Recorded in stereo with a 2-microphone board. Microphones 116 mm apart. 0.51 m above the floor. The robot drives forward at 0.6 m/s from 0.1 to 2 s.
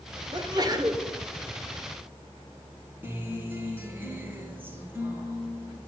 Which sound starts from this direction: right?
A sneeze, at 0.3 s.